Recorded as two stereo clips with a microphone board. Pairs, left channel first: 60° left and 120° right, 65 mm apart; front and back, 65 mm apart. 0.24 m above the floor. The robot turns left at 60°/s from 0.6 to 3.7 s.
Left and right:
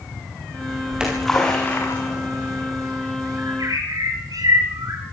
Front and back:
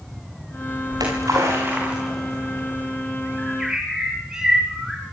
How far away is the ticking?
I don't hear ticking.